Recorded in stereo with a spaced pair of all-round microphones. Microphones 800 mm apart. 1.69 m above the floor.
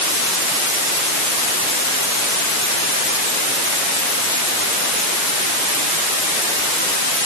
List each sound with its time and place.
Only background noise.